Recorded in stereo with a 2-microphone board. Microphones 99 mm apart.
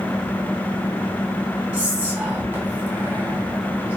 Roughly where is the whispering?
Centre.